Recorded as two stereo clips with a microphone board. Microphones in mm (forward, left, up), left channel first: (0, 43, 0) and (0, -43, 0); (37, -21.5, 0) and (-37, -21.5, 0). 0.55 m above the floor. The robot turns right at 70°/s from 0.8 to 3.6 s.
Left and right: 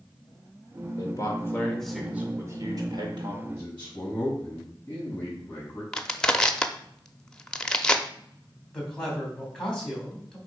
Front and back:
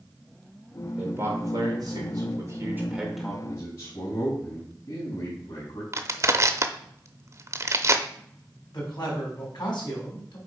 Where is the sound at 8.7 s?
10° left, 3.5 m.